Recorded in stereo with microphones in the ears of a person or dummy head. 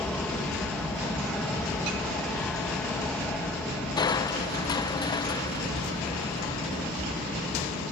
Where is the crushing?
30° left (ahead or behind).